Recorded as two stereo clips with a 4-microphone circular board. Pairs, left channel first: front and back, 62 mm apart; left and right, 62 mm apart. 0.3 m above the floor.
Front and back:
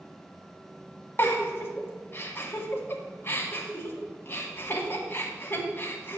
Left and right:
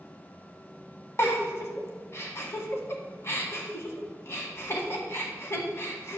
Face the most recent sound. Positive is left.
turn(degrees=50)